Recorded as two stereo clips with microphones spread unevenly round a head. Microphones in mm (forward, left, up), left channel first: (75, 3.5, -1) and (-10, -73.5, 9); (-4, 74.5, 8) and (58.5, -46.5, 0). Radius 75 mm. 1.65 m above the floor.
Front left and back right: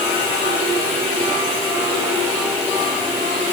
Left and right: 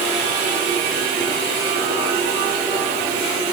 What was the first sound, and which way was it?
Only background noise.